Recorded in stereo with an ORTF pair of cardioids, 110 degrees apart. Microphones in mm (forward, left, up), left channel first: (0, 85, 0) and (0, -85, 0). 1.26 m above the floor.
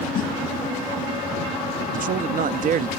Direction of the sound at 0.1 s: 55° left.